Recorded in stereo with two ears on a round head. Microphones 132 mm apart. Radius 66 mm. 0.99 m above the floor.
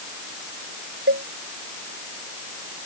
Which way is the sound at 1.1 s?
80° right.